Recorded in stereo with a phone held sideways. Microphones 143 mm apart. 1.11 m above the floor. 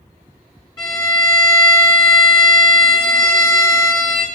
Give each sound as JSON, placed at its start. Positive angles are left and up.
{"t": 0.8, "sound": "a violin", "side_deg": 25, "distance_m": 1.4}